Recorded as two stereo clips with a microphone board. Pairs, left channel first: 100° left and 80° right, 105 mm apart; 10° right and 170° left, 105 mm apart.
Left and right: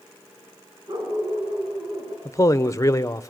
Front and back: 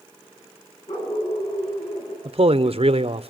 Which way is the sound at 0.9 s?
35° right.